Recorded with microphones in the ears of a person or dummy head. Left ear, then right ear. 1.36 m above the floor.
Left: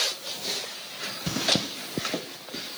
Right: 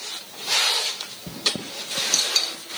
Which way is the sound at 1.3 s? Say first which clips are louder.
Left 1 dB; 40° left (ahead or behind).